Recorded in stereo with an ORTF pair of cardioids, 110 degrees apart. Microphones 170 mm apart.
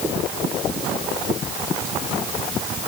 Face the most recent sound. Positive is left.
No sound to turn to.